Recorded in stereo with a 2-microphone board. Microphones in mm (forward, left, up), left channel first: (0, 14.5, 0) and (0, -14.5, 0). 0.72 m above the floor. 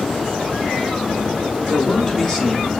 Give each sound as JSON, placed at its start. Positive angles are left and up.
{"t": 1.7, "sound": "a man speaking", "side_deg": 15, "distance_m": 2.5}